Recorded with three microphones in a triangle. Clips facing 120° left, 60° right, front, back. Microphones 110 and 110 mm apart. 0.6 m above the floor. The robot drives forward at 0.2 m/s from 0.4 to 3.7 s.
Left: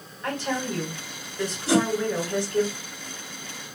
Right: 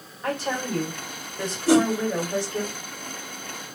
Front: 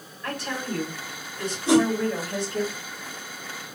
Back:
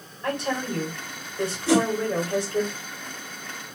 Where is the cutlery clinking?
No cutlery clinking in this recording.